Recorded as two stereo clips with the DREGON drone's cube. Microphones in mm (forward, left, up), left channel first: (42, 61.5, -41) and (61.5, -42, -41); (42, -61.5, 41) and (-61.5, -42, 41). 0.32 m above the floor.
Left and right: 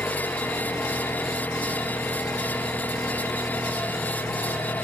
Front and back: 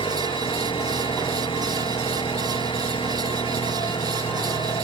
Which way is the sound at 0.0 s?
25° left.